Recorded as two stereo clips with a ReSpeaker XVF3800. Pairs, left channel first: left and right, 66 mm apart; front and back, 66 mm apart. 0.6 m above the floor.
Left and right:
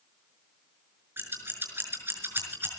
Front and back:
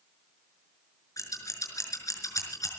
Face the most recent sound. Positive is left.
turn(degrees=-30)